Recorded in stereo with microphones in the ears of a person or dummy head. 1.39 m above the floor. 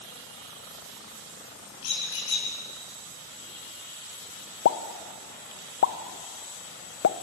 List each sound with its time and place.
1.8 s a squeak: 75° left (ahead or behind), 6.5 m
4.7 s a pop: 60° left (ahead or behind), 0.7 m